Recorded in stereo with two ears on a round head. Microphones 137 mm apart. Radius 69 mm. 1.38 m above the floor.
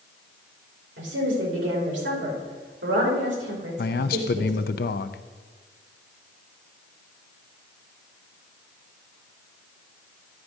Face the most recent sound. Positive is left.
turn(degrees=65)  # may be behind; listen again after turning